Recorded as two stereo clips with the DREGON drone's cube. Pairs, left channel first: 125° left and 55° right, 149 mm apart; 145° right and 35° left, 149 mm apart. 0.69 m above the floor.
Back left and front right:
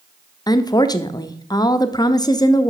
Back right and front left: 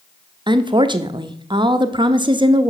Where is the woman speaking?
75° left, 0.6 m.